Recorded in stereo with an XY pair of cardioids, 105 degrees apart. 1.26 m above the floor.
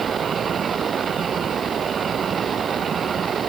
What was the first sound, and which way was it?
Only background noise.